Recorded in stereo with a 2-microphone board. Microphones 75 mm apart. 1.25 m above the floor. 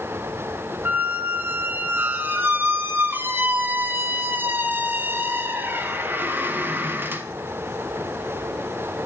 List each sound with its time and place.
0.8 s a squeak: 25° right (ahead or behind), 0.6 m